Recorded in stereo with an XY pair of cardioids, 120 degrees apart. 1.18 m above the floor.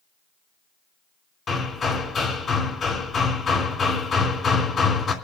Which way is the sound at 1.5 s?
35° left.